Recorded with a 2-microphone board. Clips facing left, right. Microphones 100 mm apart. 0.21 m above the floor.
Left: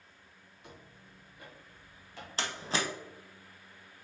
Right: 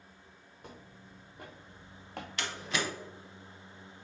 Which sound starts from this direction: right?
Footsteps, at 0.6 s.